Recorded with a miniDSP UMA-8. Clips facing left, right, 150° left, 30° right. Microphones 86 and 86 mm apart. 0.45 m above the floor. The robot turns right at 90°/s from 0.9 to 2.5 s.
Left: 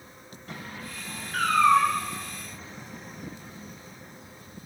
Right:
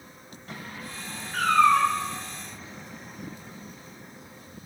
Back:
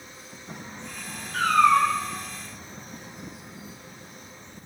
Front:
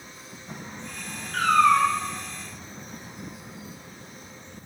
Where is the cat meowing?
Straight ahead, 1.6 m; by 1.9 s 55° left, 1.6 m.